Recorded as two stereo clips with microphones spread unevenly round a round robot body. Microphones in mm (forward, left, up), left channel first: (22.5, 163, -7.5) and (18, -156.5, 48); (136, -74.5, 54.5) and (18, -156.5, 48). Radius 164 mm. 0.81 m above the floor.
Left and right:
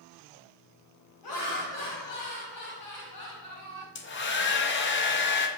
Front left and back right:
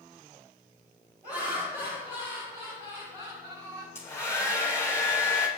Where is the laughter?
115° left, 5 m; by 3.9 s 130° left, 6 m.